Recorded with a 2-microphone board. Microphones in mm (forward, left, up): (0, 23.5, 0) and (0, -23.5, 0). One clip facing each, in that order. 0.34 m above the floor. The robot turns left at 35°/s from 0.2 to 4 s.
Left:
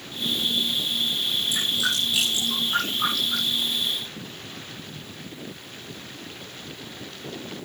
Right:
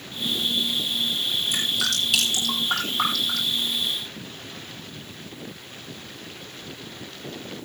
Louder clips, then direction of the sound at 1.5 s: Even; 55° right (ahead or behind).